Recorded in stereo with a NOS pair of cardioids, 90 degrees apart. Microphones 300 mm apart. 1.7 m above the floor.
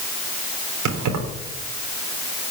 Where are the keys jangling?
70° right, 3.5 m.